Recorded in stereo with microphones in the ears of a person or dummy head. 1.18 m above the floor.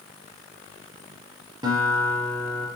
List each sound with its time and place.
1.6 s a guitar: 25° right (ahead or behind), 4 m